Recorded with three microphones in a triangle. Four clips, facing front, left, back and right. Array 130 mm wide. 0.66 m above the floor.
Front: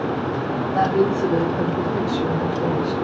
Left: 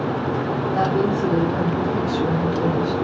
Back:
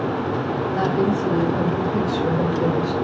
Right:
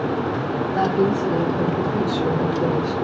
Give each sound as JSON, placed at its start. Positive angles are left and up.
{"t": 0.7, "sound": "a woman speaking", "azimuth_deg": 45, "distance_m": 1.5}